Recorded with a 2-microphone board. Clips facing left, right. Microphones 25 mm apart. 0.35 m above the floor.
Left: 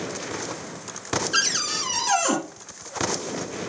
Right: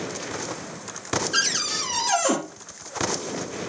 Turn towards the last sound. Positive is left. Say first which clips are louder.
# left 1 dB
turn(degrees=10)  # may be behind; listen again after turning